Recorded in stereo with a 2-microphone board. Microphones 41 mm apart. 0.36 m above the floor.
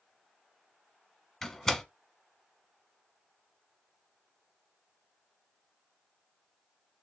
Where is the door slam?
15° left (ahead or behind), 1.0 m.